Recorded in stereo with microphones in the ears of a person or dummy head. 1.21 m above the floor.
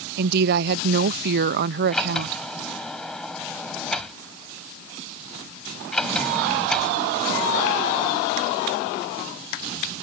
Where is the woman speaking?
65° right (ahead or behind).